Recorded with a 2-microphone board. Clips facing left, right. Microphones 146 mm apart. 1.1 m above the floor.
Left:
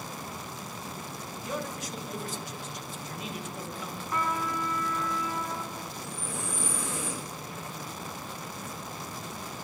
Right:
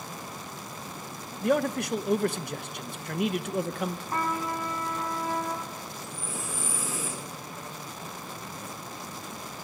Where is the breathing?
5° right (ahead or behind), 3 m.